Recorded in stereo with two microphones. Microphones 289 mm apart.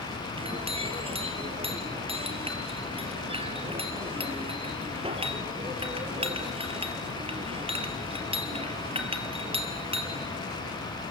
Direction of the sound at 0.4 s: 20° right (ahead or behind).